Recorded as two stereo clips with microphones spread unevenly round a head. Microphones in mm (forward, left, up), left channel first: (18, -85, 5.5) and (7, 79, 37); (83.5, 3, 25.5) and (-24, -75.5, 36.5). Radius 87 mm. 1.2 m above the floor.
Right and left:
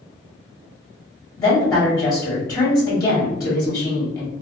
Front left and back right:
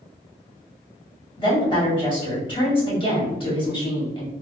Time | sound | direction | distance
1.4 | a woman speaking | 15° right | 1.7 m